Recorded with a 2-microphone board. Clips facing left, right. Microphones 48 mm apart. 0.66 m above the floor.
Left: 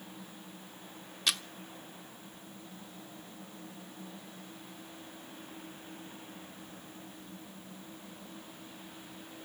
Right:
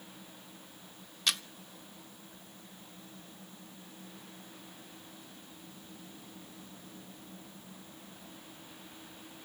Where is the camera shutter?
Centre (ahead or behind), 0.8 m.